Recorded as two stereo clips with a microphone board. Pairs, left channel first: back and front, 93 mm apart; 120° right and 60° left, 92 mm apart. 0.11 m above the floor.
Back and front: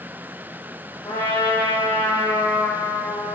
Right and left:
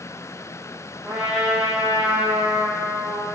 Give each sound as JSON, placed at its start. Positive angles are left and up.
{"t": 1.1, "sound": "a trumpet", "azimuth_deg": 145, "distance_m": 7.0}